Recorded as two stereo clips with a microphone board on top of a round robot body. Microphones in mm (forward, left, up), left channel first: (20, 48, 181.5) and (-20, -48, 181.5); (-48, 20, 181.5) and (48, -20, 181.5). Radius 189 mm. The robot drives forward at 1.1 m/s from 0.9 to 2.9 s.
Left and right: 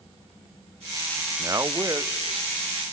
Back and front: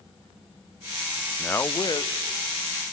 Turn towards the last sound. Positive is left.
turn(degrees=-175)